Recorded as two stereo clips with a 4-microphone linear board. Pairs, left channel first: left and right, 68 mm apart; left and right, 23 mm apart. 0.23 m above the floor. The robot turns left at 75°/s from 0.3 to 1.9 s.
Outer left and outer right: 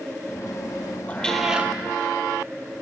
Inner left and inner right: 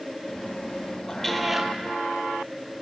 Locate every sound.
1.1 s a cat meowing: 25° left, 0.5 m; by 1.7 s 25° right, 0.5 m